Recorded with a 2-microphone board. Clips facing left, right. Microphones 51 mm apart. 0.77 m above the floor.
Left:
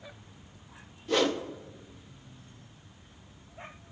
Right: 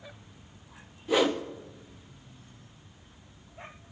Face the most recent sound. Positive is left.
turn(degrees=-10)  # may be behind; listen again after turning